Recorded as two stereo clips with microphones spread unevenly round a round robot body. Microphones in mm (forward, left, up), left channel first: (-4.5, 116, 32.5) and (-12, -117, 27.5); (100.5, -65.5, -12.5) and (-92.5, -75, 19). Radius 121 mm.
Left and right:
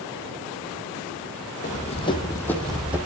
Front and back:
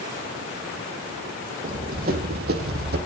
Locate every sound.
1.6 s running footsteps: 140° left, 1.2 m; by 3.0 s 175° right, 1.1 m